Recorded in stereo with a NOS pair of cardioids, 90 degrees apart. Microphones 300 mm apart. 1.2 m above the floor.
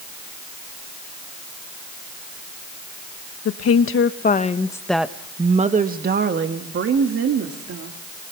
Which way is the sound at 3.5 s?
55° left.